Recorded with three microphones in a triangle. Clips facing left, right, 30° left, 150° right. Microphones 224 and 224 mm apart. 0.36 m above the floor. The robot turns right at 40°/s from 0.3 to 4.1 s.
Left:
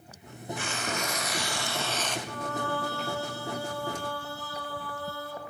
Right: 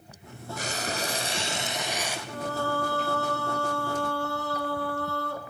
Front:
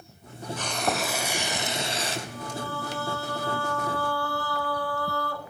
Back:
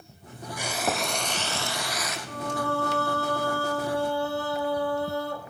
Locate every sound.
0.6 s frying: 75° right, 0.9 m; by 2.2 s 10° right, 0.9 m
2.3 s singing: 155° right, 0.9 m; by 5.4 s 80° right, 0.9 m